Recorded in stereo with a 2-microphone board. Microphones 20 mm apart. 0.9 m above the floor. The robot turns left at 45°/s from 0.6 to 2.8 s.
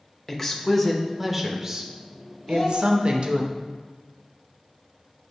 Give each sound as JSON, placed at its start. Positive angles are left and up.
{"t": 0.3, "sound": "a woman speaking", "azimuth_deg": 20, "distance_m": 0.7}
{"t": 2.5, "sound": "a child speaking", "side_deg": 35, "distance_m": 1.7}